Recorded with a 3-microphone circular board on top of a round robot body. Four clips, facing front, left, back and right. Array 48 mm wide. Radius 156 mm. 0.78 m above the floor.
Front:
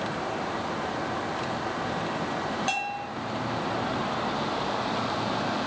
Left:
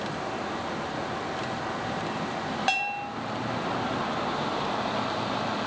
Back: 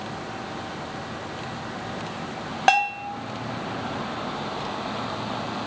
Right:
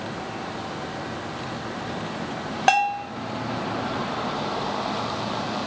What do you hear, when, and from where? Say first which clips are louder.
2.7 s a bell: right 10 dB, back 9 dB; 145° right, 1.4 m